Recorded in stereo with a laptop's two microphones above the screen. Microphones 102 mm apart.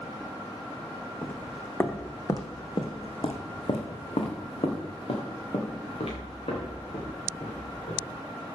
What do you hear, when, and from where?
1.2 s footsteps: 10° left (ahead or behind), 2 m; by 8.1 s 70° left (ahead or behind), 6 m